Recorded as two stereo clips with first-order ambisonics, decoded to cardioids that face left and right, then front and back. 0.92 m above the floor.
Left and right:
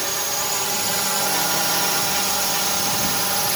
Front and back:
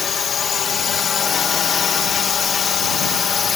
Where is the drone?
15° right.